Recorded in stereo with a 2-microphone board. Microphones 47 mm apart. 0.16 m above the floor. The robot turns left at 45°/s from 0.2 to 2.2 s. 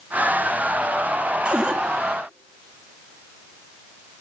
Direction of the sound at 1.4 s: 30° right (ahead or behind).